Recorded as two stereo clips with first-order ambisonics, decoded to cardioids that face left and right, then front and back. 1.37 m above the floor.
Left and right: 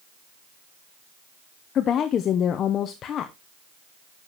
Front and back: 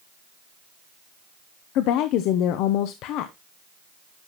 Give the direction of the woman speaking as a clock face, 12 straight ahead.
11 o'clock.